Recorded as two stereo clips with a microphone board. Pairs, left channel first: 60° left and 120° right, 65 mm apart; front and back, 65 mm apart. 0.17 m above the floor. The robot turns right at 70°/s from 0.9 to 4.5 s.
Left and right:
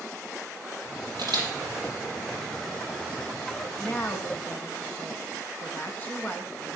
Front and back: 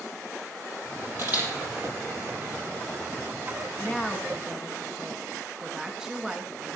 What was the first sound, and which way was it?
A camera shutter, 130° right.